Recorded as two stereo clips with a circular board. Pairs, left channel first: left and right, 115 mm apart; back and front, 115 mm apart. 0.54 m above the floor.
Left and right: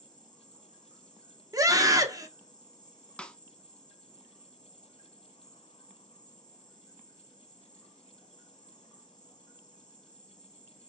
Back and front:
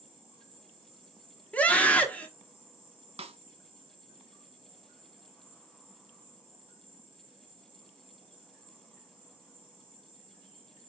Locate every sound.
0.0 s an insect: 40° left, 2 m
1.5 s a scream: 115° right, 1.0 m
3.2 s a snare drum: 10° left, 0.6 m